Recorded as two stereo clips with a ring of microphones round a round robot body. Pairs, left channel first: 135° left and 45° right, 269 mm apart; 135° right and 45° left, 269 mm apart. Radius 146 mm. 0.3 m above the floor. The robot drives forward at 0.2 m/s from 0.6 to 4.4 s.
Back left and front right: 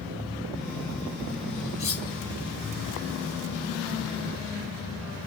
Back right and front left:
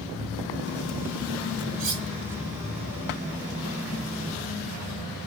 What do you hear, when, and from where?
1.8 s cutlery clinking: 80° left, 1.6 m; by 2.1 s 85° left, 1.6 m